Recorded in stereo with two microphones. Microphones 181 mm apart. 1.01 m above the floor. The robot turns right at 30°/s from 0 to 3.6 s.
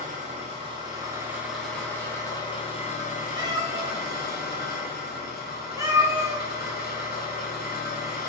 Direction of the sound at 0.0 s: 50° right.